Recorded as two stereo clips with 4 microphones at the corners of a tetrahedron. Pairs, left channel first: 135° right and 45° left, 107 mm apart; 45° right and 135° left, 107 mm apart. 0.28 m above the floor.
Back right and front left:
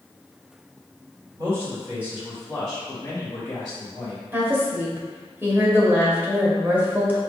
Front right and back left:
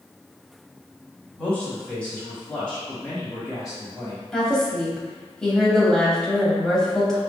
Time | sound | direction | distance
1.4 | a man speaking | 25° left | 1.6 m
4.3 | a woman speaking | 25° left | 0.9 m